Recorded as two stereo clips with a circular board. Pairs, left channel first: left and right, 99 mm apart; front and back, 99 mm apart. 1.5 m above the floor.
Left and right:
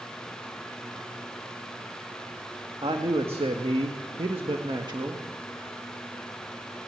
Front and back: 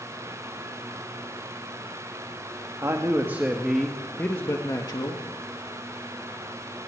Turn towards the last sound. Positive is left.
turn(degrees=-40)